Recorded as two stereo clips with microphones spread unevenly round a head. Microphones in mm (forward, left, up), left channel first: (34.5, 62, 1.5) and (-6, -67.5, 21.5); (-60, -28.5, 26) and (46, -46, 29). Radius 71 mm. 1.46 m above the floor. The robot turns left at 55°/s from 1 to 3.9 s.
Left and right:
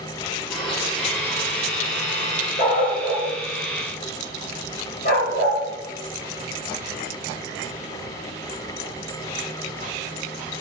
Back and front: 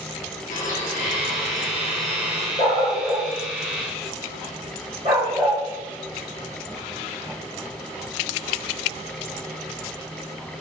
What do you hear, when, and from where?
0.5 s a blender: 160° left, 3 m; by 2.5 s 80° left, 3 m
2.6 s a dog barking: 115° left, 3 m; by 5.6 s 40° left, 3 m